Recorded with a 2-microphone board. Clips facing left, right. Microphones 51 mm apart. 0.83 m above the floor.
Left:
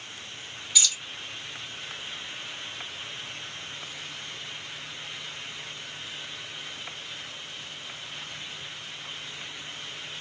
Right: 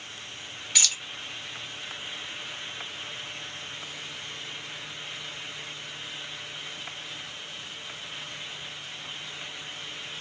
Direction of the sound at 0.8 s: 60° right (ahead or behind).